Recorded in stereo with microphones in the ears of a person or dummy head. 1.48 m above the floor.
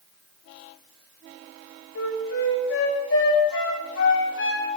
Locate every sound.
1.9 s a flute: 70° left (ahead or behind), 5.5 m